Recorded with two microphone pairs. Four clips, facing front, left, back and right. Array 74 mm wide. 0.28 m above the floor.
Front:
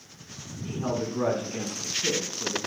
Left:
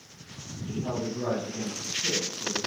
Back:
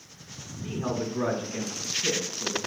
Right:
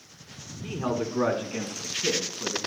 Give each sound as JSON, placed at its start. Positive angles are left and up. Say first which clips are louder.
{"t": 0.6, "sound": "a man speaking", "louder": "right 3 dB, front 1 dB", "azimuth_deg": -95, "distance_m": 3.0}